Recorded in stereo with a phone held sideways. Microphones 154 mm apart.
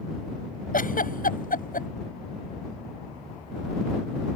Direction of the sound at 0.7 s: 65° left (ahead or behind).